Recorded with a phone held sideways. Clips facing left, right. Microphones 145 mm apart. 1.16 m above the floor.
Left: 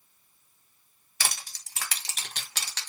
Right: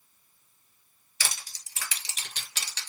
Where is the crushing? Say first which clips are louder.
Left 3 dB; 60° left (ahead or behind), 1.2 m.